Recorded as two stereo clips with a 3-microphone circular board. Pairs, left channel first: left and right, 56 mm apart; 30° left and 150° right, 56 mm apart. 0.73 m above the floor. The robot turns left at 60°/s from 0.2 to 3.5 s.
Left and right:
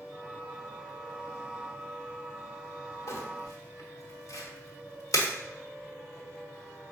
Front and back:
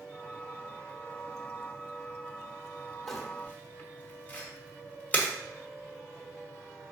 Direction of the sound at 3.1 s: 115° left.